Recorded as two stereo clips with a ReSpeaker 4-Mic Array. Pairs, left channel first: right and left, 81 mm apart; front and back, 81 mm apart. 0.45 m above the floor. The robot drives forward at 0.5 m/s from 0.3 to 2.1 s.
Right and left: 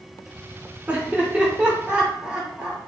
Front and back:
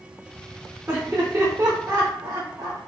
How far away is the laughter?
About 1.0 m.